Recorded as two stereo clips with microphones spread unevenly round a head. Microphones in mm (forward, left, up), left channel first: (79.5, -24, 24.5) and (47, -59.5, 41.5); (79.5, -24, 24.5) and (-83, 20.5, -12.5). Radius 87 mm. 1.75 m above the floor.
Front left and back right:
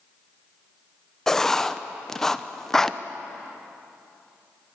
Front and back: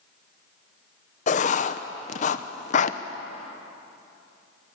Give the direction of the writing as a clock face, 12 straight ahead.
1 o'clock.